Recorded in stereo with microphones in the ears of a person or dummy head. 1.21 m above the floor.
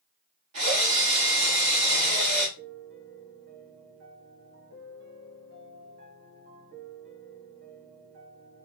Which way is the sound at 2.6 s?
50° right (ahead or behind).